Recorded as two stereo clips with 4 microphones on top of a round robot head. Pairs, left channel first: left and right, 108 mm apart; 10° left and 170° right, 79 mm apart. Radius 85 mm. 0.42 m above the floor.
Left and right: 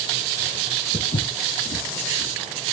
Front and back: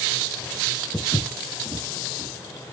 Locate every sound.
0.9 s footsteps: 95° left, 1.1 m; by 2.8 s 125° left, 2 m